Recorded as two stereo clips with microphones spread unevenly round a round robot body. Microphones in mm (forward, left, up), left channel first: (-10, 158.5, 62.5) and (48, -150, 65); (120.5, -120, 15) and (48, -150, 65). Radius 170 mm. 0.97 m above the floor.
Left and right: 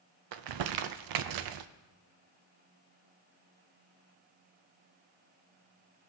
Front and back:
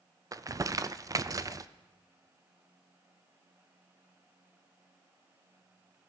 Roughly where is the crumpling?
Right.